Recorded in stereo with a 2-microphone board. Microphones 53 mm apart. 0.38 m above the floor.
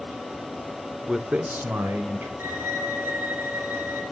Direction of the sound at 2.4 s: 40° right (ahead or behind).